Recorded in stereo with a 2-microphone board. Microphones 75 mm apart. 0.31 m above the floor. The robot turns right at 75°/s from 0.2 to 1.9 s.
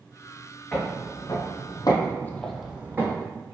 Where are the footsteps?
20° left (ahead or behind), 1.4 m; by 3.2 s 30° right (ahead or behind), 1.0 m.